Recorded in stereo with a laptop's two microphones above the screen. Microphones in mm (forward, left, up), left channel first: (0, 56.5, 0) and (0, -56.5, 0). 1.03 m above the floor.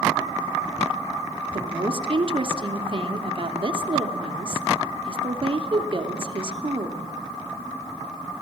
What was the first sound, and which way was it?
A woman speaking, 45° right (ahead or behind).